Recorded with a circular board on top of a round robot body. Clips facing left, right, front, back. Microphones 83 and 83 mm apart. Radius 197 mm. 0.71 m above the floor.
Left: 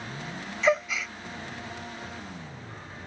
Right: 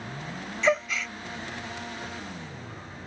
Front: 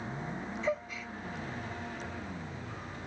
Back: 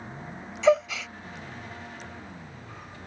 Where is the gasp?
175° left.